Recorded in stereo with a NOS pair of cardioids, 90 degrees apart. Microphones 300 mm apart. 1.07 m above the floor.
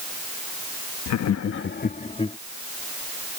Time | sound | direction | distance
1.1 | laughter | 70° left | ?